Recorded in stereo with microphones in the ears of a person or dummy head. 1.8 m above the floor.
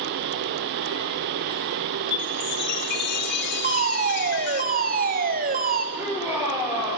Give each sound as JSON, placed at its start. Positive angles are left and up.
{"t": 2.1, "sound": "a chime", "side_deg": 55, "distance_m": 1.7}
{"t": 3.6, "sound": "a fire alarm", "side_deg": -45, "distance_m": 2.5}
{"t": 6.0, "sound": "a shout", "side_deg": -5, "distance_m": 8.5}